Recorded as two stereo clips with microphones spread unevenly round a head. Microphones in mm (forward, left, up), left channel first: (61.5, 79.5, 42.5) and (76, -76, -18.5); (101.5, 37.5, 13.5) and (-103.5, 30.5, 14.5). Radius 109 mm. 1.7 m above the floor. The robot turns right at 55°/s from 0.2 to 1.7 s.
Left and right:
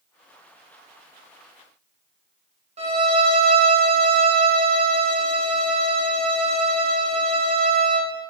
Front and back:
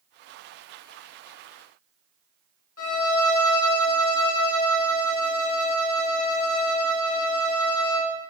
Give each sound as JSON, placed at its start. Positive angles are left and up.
{"t": 2.8, "sound": "a violin", "azimuth_deg": -30, "distance_m": 1.9}